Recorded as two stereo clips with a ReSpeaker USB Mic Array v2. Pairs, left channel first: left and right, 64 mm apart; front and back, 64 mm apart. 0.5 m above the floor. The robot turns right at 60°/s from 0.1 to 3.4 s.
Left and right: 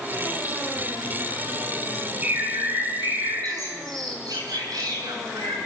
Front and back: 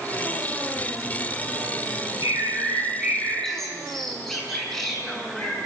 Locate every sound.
2.2 s a bird: 155° right, 7 m; by 5.6 s 85° right, 7 m